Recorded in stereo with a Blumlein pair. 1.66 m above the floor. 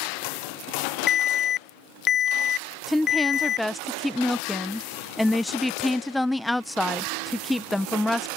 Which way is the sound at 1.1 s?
25° left.